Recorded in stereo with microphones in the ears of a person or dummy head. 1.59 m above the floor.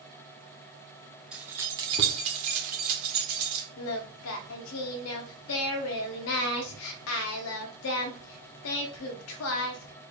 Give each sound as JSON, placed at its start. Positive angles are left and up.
{"t": 1.3, "sound": "keys jangling", "side_deg": -5, "distance_m": 0.6}
{"t": 3.8, "sound": "singing", "side_deg": 70, "distance_m": 0.5}